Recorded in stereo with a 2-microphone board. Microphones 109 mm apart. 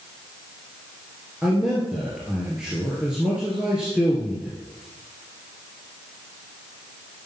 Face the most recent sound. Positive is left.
turn(degrees=-5)  # may be behind; listen again after turning